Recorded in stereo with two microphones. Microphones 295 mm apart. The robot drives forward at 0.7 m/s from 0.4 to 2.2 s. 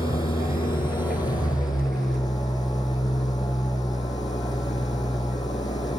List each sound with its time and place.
0.0 s an engine running: 15° left (ahead or behind), 5 m